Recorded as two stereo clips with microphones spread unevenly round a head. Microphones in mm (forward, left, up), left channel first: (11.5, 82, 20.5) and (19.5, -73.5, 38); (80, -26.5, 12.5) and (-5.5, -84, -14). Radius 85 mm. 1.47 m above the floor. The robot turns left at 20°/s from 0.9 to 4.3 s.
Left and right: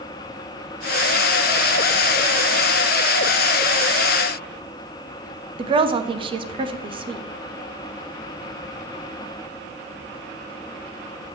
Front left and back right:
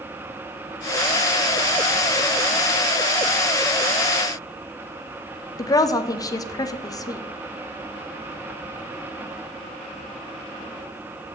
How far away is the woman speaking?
About 0.7 m.